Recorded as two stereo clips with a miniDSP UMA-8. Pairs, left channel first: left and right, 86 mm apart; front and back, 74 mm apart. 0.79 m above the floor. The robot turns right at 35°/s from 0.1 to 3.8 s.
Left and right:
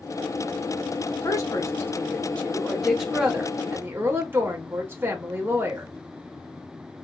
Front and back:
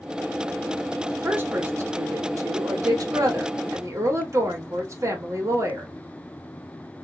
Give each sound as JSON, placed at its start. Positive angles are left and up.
{"t": 1.2, "sound": "a woman speaking", "azimuth_deg": 120, "distance_m": 1.2}